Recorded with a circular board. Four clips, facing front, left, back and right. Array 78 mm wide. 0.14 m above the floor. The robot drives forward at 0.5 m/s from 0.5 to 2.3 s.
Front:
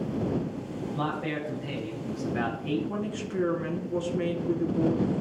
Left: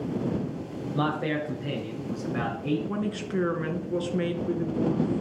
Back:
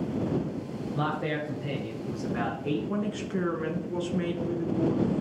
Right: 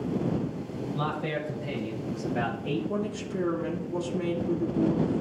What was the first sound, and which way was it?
A man speaking, 115° left.